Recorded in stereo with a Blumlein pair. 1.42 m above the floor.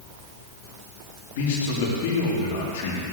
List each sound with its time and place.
1.4 s a man speaking: 50° left, 3.5 m